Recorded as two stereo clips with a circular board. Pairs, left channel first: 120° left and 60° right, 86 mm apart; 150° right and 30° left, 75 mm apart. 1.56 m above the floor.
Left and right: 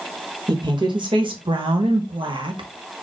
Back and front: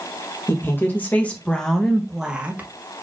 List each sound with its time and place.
0.5 s a woman speaking: 90° right, 1.5 m; by 2.7 s 35° right, 1.1 m